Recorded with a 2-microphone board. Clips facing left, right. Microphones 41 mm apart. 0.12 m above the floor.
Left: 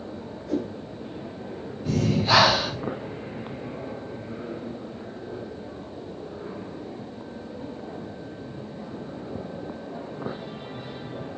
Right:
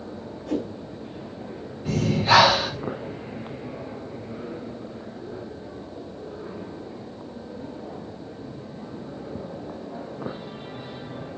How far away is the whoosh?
About 3 m.